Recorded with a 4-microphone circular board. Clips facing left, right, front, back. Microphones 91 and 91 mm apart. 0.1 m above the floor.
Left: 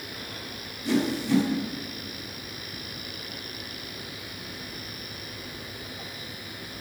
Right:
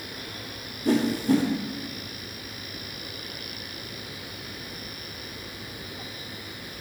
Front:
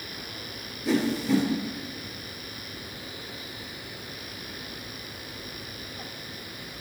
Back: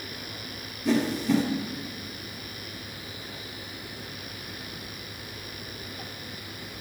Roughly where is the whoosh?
Right.